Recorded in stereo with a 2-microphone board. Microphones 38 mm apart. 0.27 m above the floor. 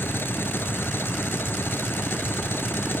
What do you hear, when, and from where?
0.0 s an engine running: 70° left (ahead or behind)